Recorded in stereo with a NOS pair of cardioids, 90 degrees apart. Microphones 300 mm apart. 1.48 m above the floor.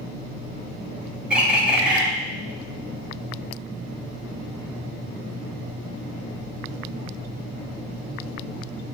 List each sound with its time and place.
1.3 s a bird: 5° right, 3.5 m